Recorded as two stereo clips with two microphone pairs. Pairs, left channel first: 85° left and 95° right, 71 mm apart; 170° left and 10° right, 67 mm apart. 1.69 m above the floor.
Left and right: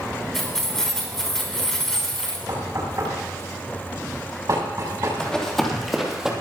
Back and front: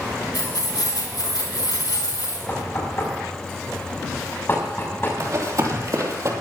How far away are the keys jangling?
About 3 m.